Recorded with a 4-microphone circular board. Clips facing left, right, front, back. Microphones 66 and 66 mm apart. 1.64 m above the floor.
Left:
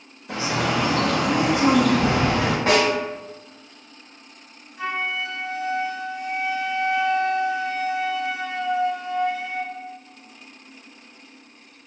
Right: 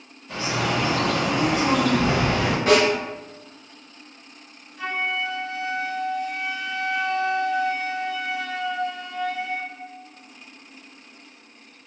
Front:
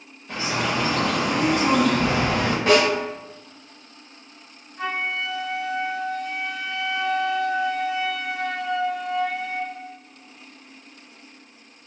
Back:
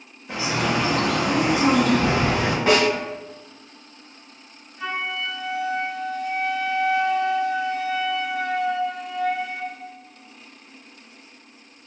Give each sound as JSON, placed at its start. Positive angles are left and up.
{"t": 0.3, "sound": "a bird", "azimuth_deg": 105, "distance_m": 0.7}
{"t": 2.7, "sound": "a snare drum", "azimuth_deg": 115, "distance_m": 1.9}
{"t": 4.8, "sound": "a flute", "azimuth_deg": 20, "distance_m": 0.6}